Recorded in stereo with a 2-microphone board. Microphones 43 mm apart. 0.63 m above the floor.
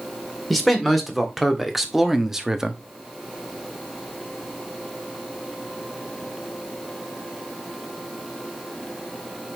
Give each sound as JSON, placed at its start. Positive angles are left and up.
{"t": 0.5, "sound": "a man speaking", "side_deg": 0, "distance_m": 2.0}